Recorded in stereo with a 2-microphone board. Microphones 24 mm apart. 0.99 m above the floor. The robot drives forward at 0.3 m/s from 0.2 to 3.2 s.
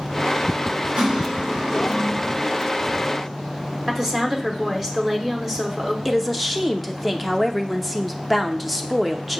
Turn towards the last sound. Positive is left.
turn(degrees=-5)  # may be behind; listen again after turning